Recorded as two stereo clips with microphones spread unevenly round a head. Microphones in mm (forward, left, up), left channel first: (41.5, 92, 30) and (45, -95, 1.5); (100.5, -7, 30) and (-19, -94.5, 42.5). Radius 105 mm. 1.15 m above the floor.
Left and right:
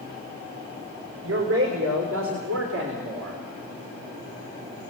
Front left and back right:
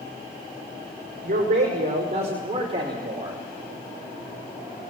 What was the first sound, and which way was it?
A man speaking, 115° right.